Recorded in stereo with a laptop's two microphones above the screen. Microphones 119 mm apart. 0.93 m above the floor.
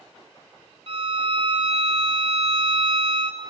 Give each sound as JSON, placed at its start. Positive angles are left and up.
{"t": 0.9, "sound": "a violin", "side_deg": -50, "distance_m": 0.6}